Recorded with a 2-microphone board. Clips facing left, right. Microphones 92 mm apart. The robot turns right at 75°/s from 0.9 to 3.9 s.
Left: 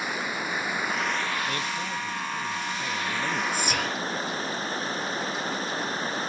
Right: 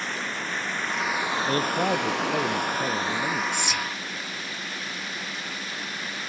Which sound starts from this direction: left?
Whispering, at 3.5 s.